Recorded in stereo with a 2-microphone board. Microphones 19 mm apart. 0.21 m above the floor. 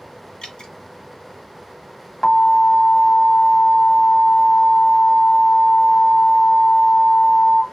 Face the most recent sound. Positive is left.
turn(degrees=20)  # may be behind; listen again after turning